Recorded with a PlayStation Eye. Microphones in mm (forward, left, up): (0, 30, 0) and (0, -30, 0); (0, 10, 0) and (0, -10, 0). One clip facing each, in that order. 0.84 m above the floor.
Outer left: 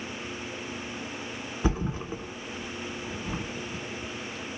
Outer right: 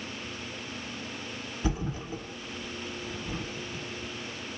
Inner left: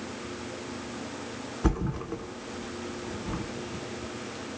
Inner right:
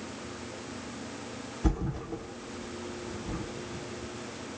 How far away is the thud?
About 0.9 m.